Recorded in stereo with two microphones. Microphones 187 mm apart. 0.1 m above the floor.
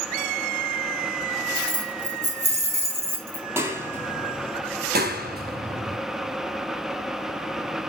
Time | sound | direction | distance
1.6 | keys jangling | 45° right (ahead or behind) | 3 m
3.5 | a clap | 10° right (ahead or behind) | 2 m
4.9 | a clap | 55° right (ahead or behind) | 2 m